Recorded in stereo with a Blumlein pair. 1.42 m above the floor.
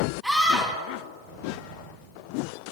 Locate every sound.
0.2 s a scream: straight ahead, 5.5 m